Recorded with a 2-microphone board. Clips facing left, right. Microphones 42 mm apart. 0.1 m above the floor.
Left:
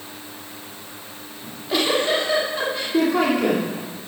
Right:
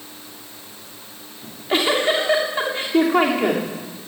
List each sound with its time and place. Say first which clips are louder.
1.4 s a giggle: right 2 dB; 35° right (ahead or behind), 8.5 m